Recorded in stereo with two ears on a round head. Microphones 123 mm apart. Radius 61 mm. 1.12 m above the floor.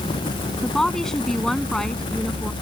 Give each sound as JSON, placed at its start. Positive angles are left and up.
{"t": 0.6, "sound": "a woman speaking", "side_deg": 5}